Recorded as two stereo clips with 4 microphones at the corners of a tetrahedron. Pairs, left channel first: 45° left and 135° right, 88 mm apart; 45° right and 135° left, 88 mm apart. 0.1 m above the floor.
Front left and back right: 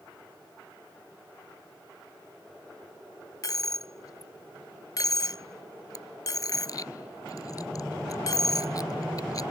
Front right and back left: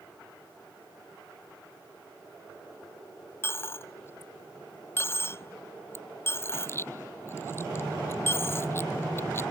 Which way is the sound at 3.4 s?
10° left.